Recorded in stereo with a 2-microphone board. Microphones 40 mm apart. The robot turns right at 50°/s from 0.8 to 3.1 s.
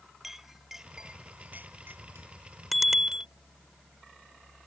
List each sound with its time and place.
0.2 s a clink: 10° right (ahead or behind); by 2.3 s 80° right
2.7 s a bicycle bell: centre (ahead or behind); by 3.3 s 20° right (ahead or behind)